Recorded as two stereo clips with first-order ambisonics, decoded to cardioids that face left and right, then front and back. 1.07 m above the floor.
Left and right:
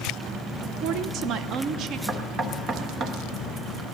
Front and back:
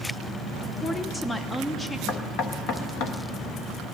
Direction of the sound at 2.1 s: 30° right.